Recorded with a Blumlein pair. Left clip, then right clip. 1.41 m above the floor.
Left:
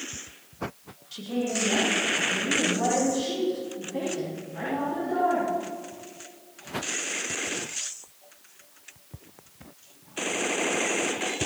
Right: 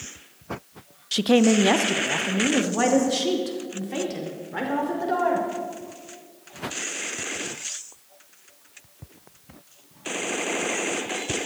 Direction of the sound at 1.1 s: 55° right.